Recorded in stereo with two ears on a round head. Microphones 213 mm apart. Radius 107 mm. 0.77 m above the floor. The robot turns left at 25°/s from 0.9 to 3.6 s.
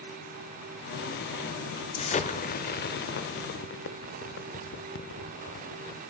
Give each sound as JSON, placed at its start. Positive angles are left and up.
{"t": 2.0, "sound": "an explosion", "side_deg": 25, "distance_m": 0.7}